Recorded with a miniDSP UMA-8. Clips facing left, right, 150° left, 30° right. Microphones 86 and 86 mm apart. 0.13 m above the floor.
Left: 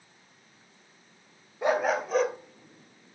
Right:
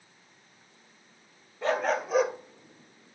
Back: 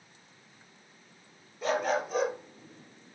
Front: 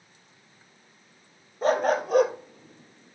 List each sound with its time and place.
1.6 s a dog barking: 15° left, 1.4 m; by 3.2 s 45° right, 1.6 m